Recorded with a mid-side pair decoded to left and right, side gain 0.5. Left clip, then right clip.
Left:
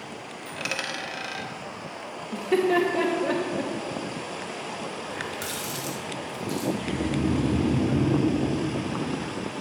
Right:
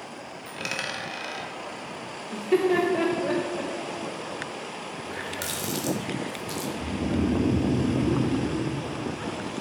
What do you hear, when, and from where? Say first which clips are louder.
0.5 s a dropped coin: left 1 dB; straight ahead, 1.3 m
2.3 s laughter: even; 5° left, 0.8 m
5.0 s a running tap: right 3 dB; 35° right, 1.6 m
6.8 s snoring: left 1 dB; 35° right, 1.5 m